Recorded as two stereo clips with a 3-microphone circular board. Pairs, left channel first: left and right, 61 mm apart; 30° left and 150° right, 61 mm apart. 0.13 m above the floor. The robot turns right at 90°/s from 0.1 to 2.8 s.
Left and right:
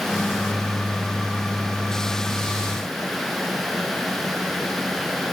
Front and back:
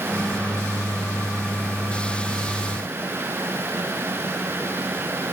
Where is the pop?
No pop in this recording.